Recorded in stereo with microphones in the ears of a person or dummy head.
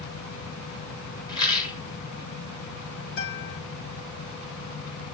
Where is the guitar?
60° left (ahead or behind), 1.7 m.